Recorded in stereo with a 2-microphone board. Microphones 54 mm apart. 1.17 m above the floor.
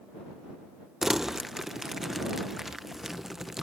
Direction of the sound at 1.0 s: 10° right (ahead or behind).